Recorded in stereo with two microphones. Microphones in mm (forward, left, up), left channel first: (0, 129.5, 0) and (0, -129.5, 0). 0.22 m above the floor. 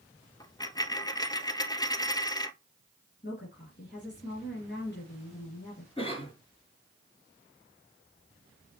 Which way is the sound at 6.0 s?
20° left (ahead or behind).